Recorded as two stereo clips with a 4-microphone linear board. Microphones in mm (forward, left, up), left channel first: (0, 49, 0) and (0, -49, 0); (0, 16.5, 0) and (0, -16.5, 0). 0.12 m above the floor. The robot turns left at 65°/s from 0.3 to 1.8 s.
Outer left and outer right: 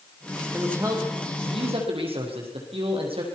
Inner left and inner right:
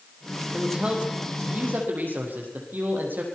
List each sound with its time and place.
0.5 s a man speaking: 15° right, 5.5 m; by 3.2 s 100° right, 5.5 m